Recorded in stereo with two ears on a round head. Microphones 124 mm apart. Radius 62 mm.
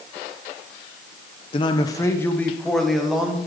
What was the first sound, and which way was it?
A man speaking, 40° left (ahead or behind).